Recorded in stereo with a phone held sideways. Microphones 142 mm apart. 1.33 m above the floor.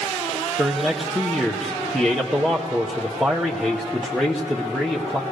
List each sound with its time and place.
0.6 s a man speaking: centre (ahead or behind), 0.9 m